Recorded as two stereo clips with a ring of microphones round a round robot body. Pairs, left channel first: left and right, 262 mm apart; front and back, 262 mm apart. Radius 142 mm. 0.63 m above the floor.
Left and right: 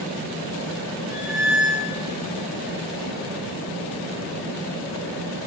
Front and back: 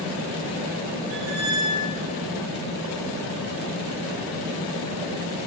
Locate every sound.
1.1 s a squeak: straight behind, 4.5 m